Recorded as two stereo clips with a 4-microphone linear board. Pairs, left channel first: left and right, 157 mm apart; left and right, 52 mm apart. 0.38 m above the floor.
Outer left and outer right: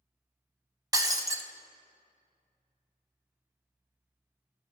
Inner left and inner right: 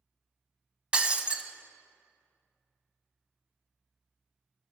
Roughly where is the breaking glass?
Right.